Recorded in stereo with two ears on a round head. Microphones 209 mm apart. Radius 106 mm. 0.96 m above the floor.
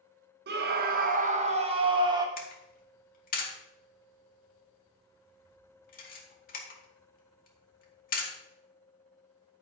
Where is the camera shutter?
40° left (ahead or behind), 2 m.